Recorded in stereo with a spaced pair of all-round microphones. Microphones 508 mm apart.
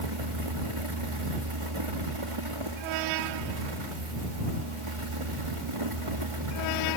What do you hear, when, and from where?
0.0 s a fan: 75° right (ahead or behind)